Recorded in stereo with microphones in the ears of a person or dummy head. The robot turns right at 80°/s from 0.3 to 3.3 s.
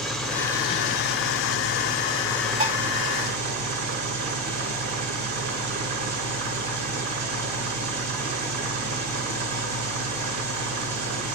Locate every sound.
0.0 s an engine running: 5° left, 1.2 m; by 11.3 s 115° right, 1.2 m
2.6 s dishes clattering: 45° right (ahead or behind), 1.8 m; by 2.8 s 55° right (ahead or behind), 1.8 m